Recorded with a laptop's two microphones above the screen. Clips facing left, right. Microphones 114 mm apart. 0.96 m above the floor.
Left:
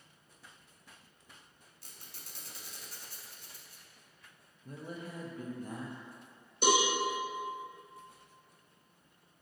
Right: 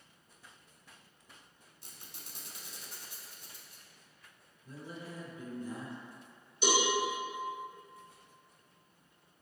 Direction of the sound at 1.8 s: 20° right (ahead or behind).